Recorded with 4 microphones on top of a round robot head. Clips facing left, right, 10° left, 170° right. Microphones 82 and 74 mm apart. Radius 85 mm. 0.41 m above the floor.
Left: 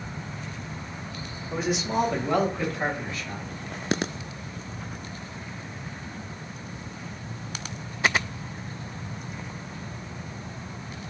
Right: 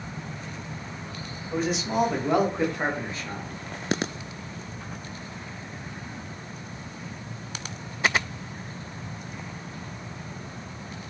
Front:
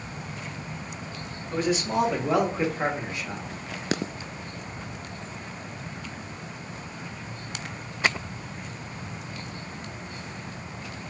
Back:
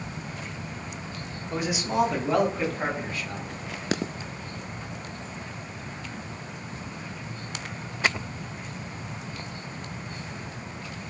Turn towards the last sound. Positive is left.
turn(degrees=-45)